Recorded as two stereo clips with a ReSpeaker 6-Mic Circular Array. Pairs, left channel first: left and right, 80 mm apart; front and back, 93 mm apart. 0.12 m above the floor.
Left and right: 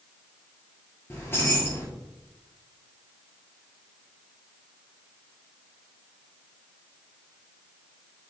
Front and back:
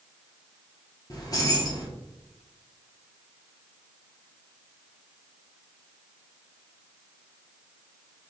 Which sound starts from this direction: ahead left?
Keys jangling, at 1.1 s.